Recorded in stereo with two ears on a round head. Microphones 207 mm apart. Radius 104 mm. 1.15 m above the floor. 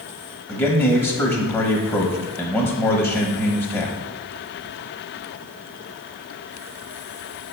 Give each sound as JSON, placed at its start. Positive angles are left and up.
{"t": 0.5, "sound": "a man speaking", "side_deg": 0, "distance_m": 1.1}